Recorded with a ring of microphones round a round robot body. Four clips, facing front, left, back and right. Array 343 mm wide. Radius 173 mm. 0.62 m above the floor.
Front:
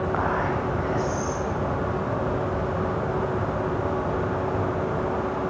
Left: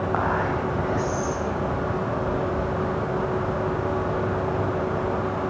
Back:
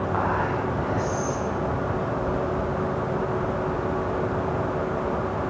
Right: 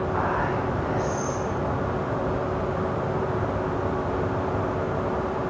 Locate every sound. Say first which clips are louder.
0.1 s whispering: left 2 dB, back 2 dB; 80° left, 3.5 m